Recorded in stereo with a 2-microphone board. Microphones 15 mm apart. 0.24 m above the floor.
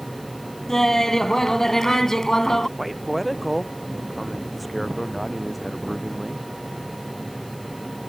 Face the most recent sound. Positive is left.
turn(degrees=0)  # may be behind; listen again after turning